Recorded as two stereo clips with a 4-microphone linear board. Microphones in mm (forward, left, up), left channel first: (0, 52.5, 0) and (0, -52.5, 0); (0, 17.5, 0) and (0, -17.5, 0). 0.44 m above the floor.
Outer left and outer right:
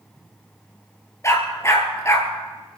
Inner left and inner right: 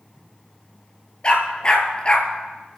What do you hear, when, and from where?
1.2 s a dog barking: 30° left (ahead or behind), 2 m